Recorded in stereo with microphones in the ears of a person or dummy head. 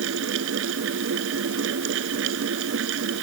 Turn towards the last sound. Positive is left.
turn(degrees=-80)